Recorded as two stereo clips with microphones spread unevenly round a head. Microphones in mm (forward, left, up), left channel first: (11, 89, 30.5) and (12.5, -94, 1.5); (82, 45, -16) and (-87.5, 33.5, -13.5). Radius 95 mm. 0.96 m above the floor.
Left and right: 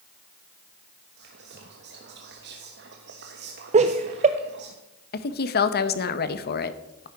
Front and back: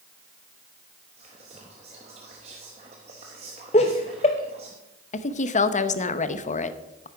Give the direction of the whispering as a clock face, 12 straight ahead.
4 o'clock.